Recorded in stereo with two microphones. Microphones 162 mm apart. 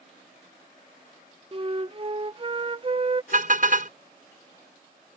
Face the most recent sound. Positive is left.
turn(degrees=-60)  # may be behind; listen again after turning